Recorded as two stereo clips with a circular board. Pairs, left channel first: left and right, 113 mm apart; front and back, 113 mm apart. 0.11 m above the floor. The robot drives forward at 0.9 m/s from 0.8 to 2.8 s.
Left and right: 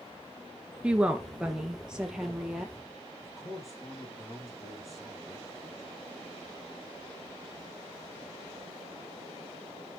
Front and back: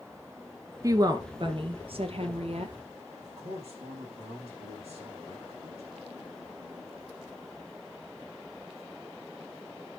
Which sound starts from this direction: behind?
A woman speaking, at 0.8 s.